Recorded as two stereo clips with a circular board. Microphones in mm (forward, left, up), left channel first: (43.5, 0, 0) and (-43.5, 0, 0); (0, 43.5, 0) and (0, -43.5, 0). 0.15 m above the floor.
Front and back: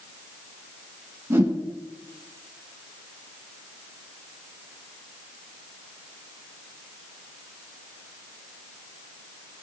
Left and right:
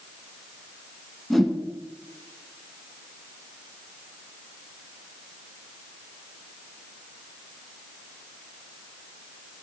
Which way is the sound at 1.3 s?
175° left.